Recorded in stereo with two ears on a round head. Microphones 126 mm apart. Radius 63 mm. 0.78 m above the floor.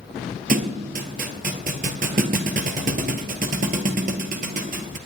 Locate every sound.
0.5 s a thud: 65° right (ahead or behind), 1.5 m